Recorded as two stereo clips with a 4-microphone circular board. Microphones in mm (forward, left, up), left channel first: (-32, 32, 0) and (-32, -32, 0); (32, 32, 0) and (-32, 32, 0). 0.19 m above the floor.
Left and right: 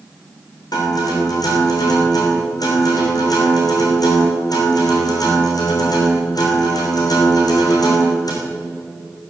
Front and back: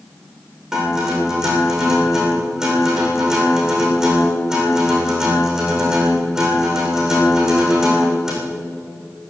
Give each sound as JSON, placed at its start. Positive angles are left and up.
{"t": 0.7, "sound": "a guitar", "azimuth_deg": 100, "distance_m": 6.0}